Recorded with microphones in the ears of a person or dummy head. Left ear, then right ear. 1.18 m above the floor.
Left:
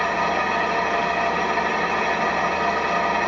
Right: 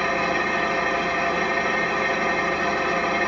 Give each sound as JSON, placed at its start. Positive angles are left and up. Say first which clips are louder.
{"t": 0.0, "sound": "an engine running", "louder": "left 1 dB", "side_deg": 20, "distance_m": 1.0}